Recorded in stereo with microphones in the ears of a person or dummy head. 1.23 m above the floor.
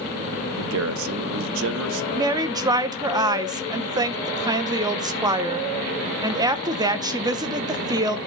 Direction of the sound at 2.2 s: 20° right (ahead or behind).